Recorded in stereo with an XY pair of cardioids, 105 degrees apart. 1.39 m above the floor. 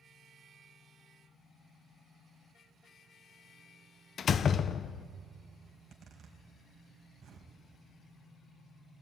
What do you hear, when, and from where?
4.2 s a door slam: 50° left, 0.5 m
5.7 s a zipper: 55° right, 3.5 m